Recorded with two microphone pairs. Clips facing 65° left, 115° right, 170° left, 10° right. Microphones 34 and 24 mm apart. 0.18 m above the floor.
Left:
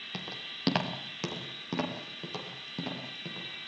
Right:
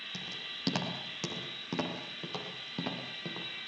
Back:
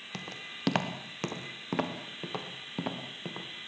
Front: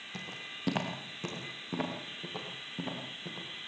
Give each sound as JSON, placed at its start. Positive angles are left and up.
{"t": 0.1, "sound": "footsteps", "azimuth_deg": 125, "distance_m": 4.0}